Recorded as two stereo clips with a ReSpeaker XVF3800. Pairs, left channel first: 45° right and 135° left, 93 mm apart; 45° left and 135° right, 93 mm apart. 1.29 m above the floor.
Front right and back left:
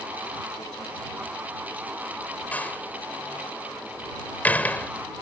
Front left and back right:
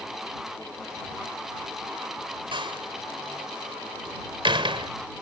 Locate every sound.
2.5 s a door slam: 115° right